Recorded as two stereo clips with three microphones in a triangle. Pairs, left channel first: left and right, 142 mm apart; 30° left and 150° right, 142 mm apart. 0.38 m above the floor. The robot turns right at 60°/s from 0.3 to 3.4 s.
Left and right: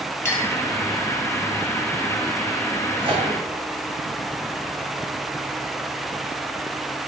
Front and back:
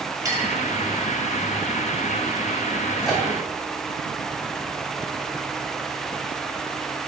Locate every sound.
0.2 s a clink: 155° left, 0.7 m; by 0.5 s 170° left, 0.7 m
3.0 s a microwave: 60° right, 1.1 m; by 3.3 s 45° right, 1.1 m